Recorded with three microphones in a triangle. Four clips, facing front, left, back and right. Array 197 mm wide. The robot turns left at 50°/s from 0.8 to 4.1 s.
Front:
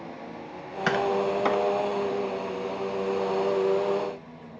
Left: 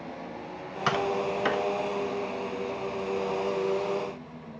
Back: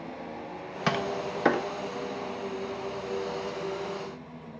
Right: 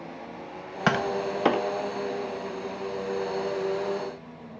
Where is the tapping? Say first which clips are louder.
Right 1 dB, front 5 dB; 105° right, 0.5 m; by 1.7 s 145° right, 0.5 m.